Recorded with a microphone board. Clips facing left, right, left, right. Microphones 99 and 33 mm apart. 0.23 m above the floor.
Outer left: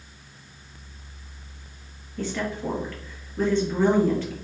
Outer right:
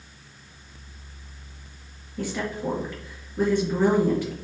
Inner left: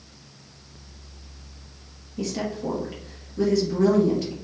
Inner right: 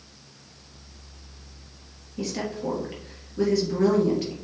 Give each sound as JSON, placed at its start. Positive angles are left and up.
{"t": 2.2, "sound": "a woman speaking", "side_deg": -10, "distance_m": 4.0}